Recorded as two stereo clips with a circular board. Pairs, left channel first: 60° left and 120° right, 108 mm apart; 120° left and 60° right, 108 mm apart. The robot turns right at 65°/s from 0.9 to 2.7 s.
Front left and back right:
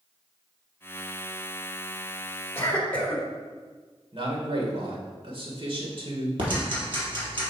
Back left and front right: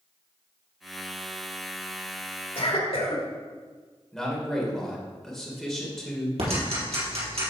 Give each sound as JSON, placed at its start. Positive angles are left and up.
{"t": 2.5, "sound": "a cough", "azimuth_deg": 125, "distance_m": 2.5}
{"t": 4.1, "sound": "a man speaking", "azimuth_deg": -150, "distance_m": 2.0}
{"t": 6.4, "sound": "ticking", "azimuth_deg": -80, "distance_m": 3.5}